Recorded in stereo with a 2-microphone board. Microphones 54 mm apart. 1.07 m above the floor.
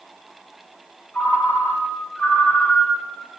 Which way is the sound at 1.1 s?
20° left (ahead or behind).